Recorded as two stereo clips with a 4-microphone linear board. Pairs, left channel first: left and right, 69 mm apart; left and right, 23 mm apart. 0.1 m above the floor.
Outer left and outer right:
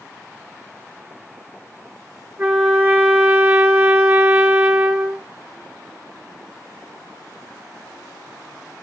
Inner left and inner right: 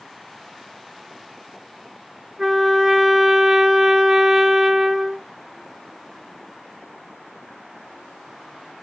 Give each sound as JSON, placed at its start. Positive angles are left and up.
{"t": 2.4, "sound": "a trumpet", "side_deg": -30, "distance_m": 1.9}